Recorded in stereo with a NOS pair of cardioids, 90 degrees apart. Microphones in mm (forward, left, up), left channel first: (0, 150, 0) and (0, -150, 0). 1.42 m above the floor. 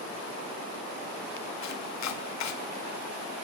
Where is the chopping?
60° left, 1.0 m.